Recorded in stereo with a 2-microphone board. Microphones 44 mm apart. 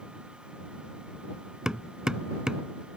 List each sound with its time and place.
1.6 s hammering: 15° right (ahead or behind)